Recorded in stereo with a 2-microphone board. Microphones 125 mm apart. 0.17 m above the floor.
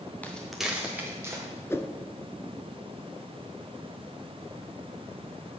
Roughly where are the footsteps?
Centre.